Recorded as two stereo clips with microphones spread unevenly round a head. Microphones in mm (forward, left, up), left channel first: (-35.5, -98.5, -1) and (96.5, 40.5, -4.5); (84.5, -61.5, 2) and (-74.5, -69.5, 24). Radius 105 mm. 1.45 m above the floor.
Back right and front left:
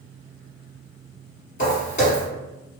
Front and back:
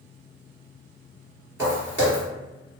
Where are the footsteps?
115° right, 1.8 m.